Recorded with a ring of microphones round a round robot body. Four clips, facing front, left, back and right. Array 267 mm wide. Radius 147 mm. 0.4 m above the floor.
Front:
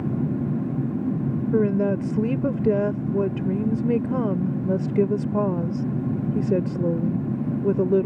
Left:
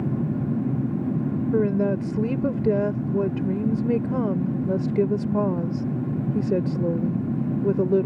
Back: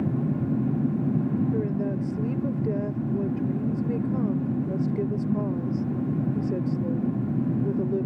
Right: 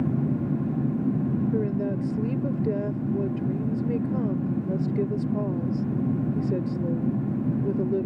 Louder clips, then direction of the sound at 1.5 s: Left 5 dB, front 6 dB; 40° left.